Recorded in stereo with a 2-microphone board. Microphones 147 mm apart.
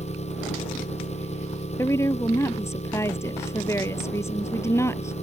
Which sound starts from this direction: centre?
A woman speaking, at 1.8 s.